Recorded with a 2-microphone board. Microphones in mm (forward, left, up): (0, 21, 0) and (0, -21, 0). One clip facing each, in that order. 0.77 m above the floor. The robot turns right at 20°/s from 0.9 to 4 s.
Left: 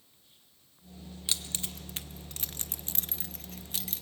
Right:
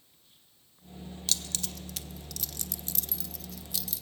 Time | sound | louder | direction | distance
1.3 | keys jangling | even | 20° left (ahead or behind) | 0.5 m